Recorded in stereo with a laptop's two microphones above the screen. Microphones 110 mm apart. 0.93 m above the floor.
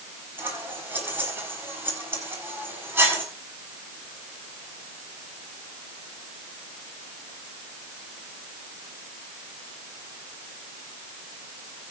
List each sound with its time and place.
0.4 s scissors: 20° right (ahead or behind), 6 m